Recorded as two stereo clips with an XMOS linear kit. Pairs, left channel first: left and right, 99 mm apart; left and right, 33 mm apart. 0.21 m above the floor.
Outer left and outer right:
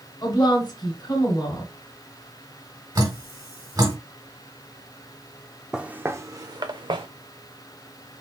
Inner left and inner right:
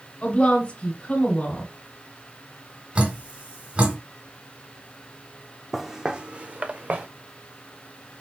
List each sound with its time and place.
0.2 s a woman speaking: 45° left (ahead or behind), 2.5 m
3.0 s dripping: 35° right (ahead or behind), 2.5 m
5.7 s footsteps: 5° right (ahead or behind), 0.5 m; by 7.1 s 60° right (ahead or behind), 0.9 m